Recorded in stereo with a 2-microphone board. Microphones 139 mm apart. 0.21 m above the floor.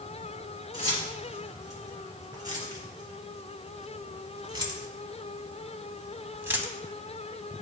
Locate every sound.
0.7 s keys jangling: 25° right (ahead or behind), 3 m; by 6.7 s 10° right (ahead or behind), 1.0 m